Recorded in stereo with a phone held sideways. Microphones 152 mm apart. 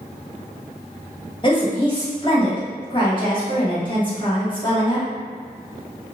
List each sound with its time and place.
1.4 s a woman speaking: 30° left (ahead or behind), 1.3 m